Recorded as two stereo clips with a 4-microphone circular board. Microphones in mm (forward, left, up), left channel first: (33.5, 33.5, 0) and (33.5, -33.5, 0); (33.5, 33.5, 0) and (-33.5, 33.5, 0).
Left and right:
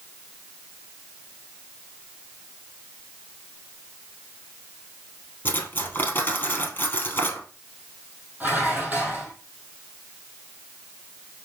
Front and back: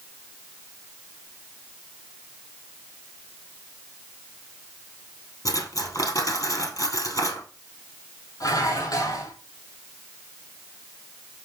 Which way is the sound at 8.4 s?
25° right.